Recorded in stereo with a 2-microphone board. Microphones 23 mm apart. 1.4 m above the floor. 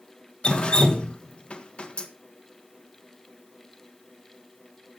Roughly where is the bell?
No bell in this recording.